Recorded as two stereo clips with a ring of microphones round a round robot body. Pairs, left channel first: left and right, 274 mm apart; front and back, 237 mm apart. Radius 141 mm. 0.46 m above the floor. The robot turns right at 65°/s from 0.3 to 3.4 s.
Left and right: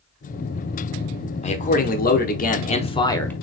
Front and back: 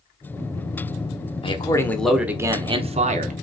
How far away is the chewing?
I don't hear chewing.